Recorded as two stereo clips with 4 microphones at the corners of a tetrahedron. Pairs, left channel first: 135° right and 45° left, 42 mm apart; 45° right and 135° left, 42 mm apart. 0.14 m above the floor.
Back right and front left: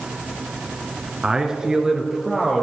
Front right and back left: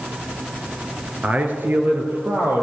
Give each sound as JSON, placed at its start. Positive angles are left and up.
{"t": 1.2, "sound": "a man speaking", "azimuth_deg": 100, "distance_m": 1.5}